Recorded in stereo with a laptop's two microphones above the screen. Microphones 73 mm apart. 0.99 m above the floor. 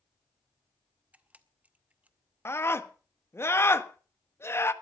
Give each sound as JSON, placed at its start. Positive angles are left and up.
{"t": 1.1, "sound": "a camera shutter", "side_deg": -20, "distance_m": 0.8}
{"t": 2.5, "sound": "a scream", "side_deg": 35, "distance_m": 1.5}